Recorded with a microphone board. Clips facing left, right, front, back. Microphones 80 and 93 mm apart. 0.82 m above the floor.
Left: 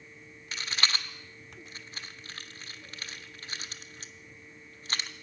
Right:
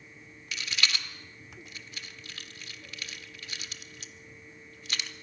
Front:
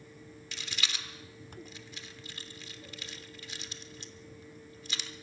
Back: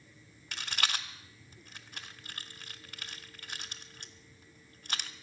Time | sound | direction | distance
0.5 | a rattle | 140° left | 1.0 m